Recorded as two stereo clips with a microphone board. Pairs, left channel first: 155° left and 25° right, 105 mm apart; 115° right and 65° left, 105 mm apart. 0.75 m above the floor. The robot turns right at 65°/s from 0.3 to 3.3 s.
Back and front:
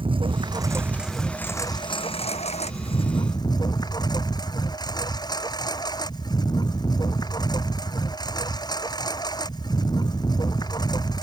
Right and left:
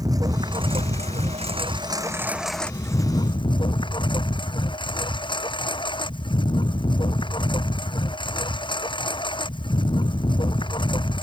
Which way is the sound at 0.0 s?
15° left.